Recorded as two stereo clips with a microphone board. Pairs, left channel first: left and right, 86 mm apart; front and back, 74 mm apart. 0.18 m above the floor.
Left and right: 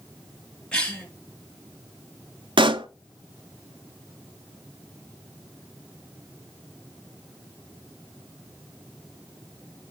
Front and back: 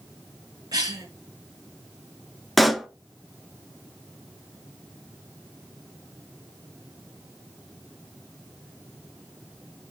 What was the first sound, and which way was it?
A cough, 170° left.